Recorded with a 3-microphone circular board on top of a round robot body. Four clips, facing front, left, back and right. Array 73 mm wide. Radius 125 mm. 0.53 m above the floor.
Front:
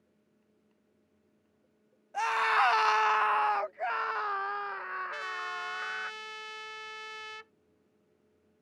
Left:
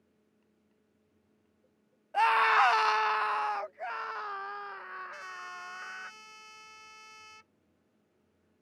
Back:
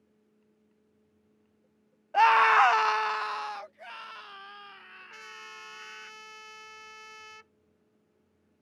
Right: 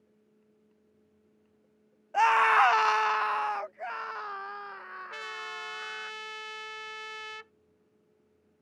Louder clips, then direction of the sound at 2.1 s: Right 2 dB, back 7 dB; 165° right.